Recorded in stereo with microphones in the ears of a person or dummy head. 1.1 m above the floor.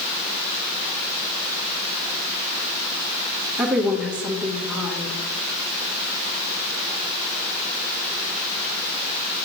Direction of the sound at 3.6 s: 5° right (ahead or behind).